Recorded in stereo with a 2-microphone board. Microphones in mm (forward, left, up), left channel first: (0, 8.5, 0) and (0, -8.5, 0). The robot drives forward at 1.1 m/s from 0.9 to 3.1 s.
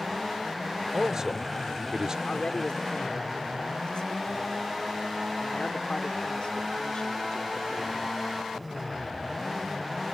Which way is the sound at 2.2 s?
60° left (ahead or behind).